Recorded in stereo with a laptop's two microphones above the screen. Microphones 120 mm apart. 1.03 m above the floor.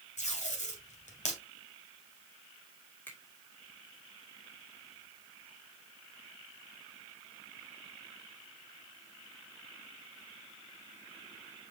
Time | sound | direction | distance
0.2 | tape being pulled | 80° left | 2.5 m
3.1 | a finger snap | 15° left (ahead or behind) | 2.5 m